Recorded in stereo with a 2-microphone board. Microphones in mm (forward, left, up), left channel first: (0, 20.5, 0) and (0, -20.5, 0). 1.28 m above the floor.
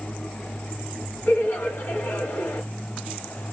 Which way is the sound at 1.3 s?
65° left (ahead or behind).